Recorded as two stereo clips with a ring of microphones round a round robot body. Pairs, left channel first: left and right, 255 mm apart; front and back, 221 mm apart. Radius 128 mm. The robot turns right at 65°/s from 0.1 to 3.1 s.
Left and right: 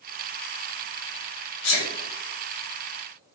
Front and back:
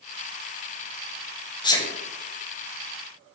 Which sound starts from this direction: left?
A sneeze, at 1.6 s.